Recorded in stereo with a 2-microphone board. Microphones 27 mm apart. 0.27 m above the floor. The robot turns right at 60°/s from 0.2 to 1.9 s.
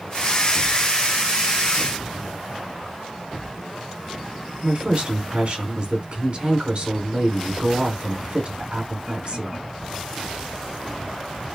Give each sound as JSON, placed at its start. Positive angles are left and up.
{"t": 4.6, "sound": "a woman speaking", "side_deg": -45, "distance_m": 3.0}